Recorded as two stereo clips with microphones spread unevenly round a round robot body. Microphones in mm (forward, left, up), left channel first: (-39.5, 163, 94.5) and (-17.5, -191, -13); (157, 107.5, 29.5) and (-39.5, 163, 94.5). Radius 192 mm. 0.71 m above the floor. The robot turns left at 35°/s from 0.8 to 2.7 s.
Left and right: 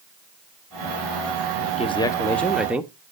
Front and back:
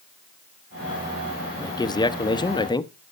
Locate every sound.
1.6 s a man speaking: 10° left, 0.8 m; by 2.9 s 25° right, 0.8 m